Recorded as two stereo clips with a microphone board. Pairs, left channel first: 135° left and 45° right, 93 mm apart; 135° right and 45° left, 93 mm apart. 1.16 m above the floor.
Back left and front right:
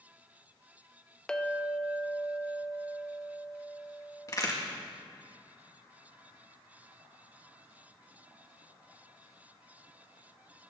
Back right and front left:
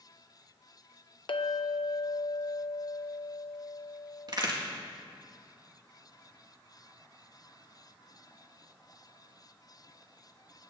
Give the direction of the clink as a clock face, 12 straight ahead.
5 o'clock.